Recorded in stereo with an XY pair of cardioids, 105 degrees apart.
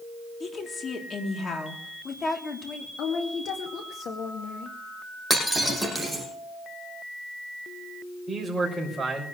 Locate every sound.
0.4 s a woman speaking: 40° left, 3.5 m
3.0 s a woman speaking: 70° left, 2 m
5.3 s breaking glass: 5° left, 6 m
8.3 s a man speaking: 10° right, 6 m